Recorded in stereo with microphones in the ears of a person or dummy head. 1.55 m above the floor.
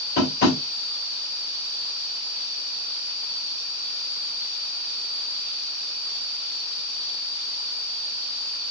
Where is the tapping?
45° left (ahead or behind), 1.5 m.